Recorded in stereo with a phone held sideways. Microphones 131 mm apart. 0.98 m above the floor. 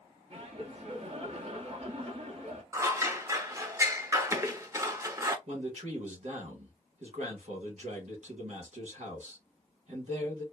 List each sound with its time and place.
0.3 s laughter: 45° right (ahead or behind), 1.2 m
2.7 s scissors: 20° right (ahead or behind), 0.6 m
5.5 s a man speaking: 60° right (ahead or behind), 1.7 m